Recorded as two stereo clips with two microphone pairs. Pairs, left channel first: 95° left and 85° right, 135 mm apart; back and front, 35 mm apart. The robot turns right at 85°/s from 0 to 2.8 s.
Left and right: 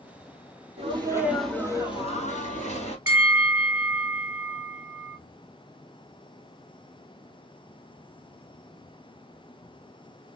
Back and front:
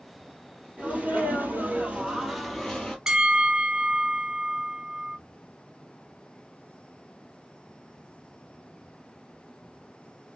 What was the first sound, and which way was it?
A sneeze, 50° right.